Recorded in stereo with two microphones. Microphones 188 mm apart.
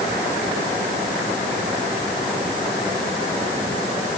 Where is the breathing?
I don't hear breathing.